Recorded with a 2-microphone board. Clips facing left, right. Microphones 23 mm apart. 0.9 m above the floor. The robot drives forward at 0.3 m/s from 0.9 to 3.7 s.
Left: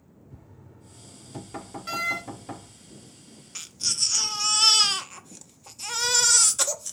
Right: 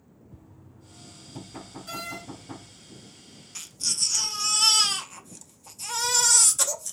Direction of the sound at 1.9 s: 40° left (ahead or behind).